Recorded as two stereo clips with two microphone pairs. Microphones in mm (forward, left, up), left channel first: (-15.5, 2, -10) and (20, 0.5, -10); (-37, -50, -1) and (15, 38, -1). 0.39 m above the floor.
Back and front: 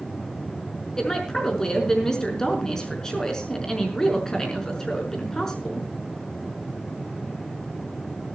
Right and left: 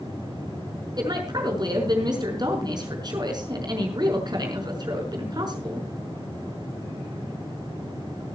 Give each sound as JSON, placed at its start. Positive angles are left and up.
{"t": 1.0, "sound": "a woman speaking", "azimuth_deg": 105, "distance_m": 5.0}